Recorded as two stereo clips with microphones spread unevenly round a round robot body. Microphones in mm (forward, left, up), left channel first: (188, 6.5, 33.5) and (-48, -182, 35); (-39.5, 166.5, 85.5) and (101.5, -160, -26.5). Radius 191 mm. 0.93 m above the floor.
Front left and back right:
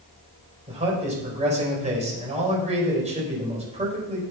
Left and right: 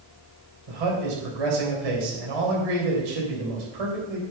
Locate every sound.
0.7 s a man speaking: 75° right, 3.5 m